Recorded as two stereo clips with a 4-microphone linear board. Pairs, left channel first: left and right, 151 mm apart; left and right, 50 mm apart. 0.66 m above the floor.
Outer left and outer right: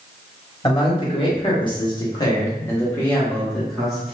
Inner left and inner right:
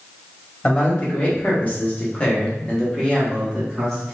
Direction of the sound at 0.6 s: 35° left (ahead or behind).